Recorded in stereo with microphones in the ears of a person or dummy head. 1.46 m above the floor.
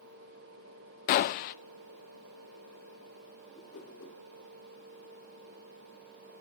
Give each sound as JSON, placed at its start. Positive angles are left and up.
{"t": 1.1, "sound": "a gunshot", "side_deg": 50, "distance_m": 0.7}
{"t": 3.5, "sound": "a whoosh", "side_deg": 40, "distance_m": 2.5}